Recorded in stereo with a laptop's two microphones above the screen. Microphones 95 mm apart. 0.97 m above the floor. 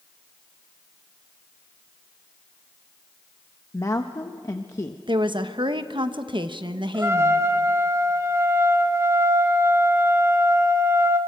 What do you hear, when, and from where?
3.7 s a woman speaking: 30° left (ahead or behind), 0.8 m
5.1 s a woman speaking: 50° right (ahead or behind), 1.2 m
6.9 s a trumpet: 30° right (ahead or behind), 1.6 m